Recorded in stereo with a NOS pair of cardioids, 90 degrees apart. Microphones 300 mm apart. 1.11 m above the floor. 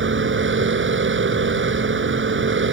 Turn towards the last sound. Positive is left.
turn(degrees=-40)